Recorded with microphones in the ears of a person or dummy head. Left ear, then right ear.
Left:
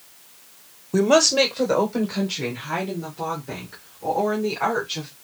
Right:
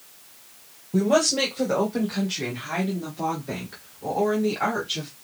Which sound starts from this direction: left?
A woman speaking, at 0.9 s.